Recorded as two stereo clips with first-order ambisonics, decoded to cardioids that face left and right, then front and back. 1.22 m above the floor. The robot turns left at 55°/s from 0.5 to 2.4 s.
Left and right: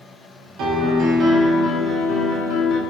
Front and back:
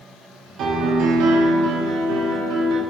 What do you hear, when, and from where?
0.6 s a piano: 125° right, 1.3 m; by 2.8 s 135° left, 1.3 m